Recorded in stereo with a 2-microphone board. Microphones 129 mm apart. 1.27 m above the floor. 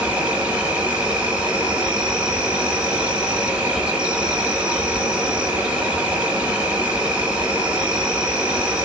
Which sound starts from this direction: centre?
An insect, at 0.0 s.